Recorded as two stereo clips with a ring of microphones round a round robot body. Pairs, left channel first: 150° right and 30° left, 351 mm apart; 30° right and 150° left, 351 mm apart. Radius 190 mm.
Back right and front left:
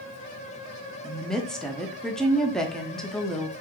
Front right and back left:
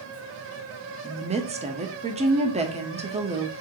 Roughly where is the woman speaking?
Behind left.